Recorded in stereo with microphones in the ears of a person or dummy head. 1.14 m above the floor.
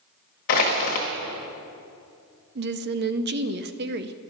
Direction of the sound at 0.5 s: 45° left (ahead or behind).